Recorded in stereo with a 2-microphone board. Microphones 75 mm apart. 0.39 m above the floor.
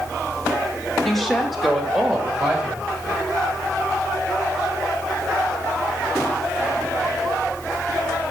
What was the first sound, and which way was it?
A woman speaking, 10° left (ahead or behind).